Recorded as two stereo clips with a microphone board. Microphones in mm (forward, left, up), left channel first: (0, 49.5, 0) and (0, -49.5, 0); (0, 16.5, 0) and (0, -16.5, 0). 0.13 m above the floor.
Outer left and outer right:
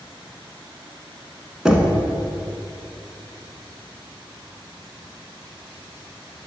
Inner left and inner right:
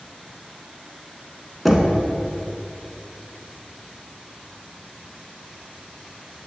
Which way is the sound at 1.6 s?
5° right (ahead or behind).